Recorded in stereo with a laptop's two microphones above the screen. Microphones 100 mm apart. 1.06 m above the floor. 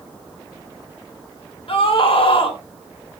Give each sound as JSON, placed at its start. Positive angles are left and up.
{"t": 1.7, "sound": "a scream", "side_deg": 65, "distance_m": 3.5}